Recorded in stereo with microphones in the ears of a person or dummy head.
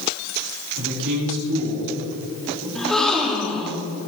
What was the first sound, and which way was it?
A man speaking, 70° right (ahead or behind).